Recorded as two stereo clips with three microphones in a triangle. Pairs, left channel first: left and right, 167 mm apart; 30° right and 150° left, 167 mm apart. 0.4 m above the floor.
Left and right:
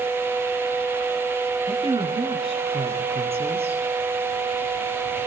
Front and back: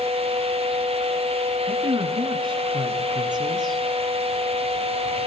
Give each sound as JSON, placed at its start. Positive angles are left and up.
{"t": 1.7, "sound": "a woman speaking", "azimuth_deg": -150, "distance_m": 7.0}